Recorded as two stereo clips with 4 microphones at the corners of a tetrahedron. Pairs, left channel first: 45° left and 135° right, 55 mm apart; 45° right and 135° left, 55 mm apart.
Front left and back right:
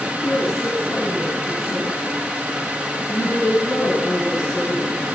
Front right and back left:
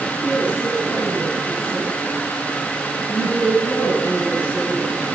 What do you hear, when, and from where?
0.2 s a woman speaking: 15° left, 4.5 m